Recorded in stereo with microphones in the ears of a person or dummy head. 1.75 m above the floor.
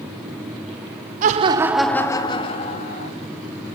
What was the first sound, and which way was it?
Laughter, 45° right (ahead or behind).